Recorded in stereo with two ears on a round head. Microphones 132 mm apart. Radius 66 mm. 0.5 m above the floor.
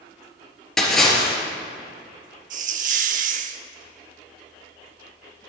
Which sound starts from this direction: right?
A hiss, at 2.5 s.